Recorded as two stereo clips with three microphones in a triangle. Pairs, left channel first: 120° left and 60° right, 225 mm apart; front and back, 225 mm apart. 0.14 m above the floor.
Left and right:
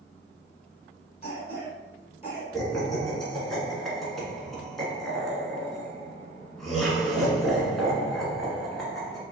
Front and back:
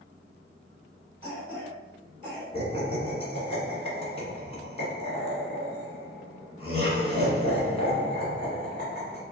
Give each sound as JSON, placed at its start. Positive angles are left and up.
{"t": 1.2, "sound": "a cough", "azimuth_deg": 145, "distance_m": 1.3}
{"t": 2.5, "sound": "laughter", "azimuth_deg": 35, "distance_m": 1.4}